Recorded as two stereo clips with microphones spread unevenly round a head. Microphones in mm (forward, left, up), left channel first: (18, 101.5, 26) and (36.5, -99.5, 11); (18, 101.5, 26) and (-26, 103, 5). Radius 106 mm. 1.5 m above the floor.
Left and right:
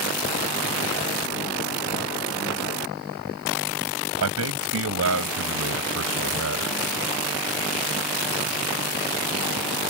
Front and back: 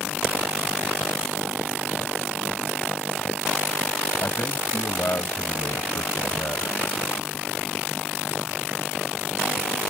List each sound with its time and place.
4.2 s a man speaking: 75° right; by 6.8 s 65° right